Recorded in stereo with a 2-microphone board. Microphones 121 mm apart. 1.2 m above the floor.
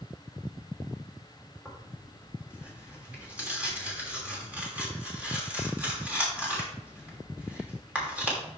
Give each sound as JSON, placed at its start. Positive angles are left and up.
{"t": 1.6, "sound": "tearing paper", "side_deg": -10, "distance_m": 3.0}